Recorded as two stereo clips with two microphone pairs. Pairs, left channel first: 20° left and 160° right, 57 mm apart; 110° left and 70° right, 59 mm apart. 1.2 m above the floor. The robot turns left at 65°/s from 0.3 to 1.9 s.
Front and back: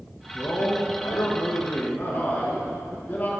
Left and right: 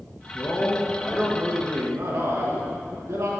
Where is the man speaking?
70° left, 1.8 m; by 3.3 s 35° right, 1.8 m.